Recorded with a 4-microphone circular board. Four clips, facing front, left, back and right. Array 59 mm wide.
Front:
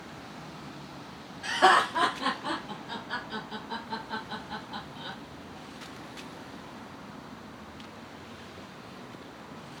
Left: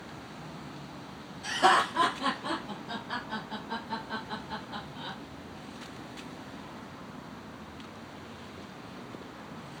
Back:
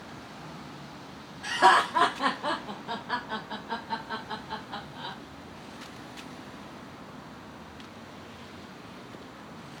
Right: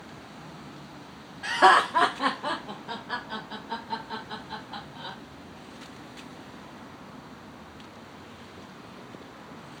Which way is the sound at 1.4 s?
85° right.